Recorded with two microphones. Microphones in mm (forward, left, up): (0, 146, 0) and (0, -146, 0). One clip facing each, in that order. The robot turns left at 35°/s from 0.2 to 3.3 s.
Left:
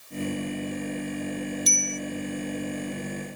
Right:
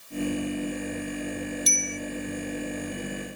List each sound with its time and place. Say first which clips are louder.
1.7 s a bicycle bell: left 1 dB; 65° right (ahead or behind); by 2.0 s 75° right (ahead or behind)